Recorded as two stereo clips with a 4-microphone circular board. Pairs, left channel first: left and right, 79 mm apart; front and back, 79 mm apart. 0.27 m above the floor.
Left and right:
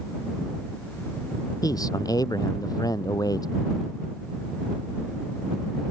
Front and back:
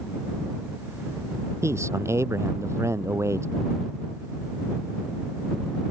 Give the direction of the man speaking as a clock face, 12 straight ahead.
8 o'clock.